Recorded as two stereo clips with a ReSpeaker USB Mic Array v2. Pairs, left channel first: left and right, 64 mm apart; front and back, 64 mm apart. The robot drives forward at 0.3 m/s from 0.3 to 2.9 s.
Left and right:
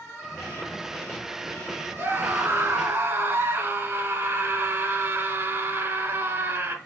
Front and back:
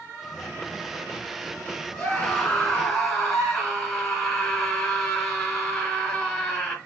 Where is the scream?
70° right, 2 m; by 6.8 s 80° right, 2 m.